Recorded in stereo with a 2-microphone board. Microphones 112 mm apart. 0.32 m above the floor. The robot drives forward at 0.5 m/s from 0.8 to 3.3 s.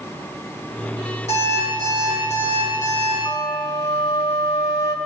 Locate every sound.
1.3 s an alarm clock: 80° left, 5.5 m; by 3.1 s 85° left, 5.5 m
3.2 s a flute: 60° left (ahead or behind), 2.5 m